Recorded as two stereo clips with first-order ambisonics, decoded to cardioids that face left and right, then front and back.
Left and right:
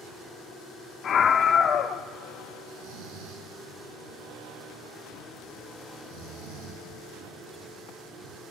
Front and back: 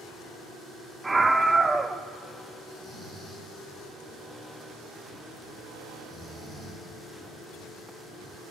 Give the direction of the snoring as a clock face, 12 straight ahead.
3 o'clock.